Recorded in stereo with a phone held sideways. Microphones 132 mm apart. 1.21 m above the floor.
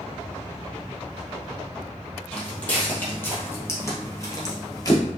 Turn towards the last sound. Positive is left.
turn(degrees=30)  # may be behind; listen again after turning